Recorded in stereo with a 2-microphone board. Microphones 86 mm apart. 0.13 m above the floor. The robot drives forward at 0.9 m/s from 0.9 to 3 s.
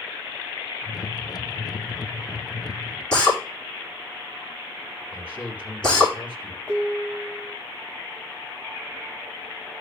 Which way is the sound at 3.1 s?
10° left (ahead or behind).